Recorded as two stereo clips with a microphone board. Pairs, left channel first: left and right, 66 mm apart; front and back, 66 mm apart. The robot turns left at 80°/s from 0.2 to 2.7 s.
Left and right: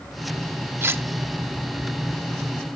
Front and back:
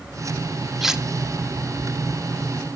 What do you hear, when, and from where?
0.8 s cutlery clinking: 95° right, 0.7 m; by 1.0 s 115° right, 0.7 m